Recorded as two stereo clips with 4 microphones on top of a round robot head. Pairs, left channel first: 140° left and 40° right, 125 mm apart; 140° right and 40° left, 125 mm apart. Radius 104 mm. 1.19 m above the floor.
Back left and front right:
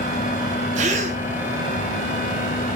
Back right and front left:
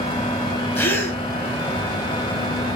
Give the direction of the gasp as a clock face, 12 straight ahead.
2 o'clock.